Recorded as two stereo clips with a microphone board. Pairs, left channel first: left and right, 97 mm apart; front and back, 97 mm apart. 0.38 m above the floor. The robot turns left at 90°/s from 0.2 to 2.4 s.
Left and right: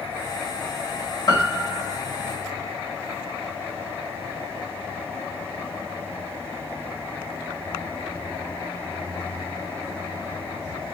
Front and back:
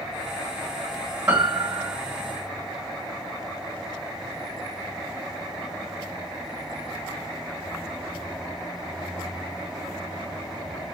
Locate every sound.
1.3 s a piano: 115° left, 1.4 m; by 2.0 s 55° left, 1.4 m